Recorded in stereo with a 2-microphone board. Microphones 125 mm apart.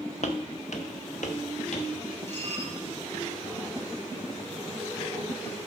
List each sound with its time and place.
0.2 s footsteps: 65° left (ahead or behind), 1.5 m
2.3 s dishes clattering: 60° right (ahead or behind), 5.5 m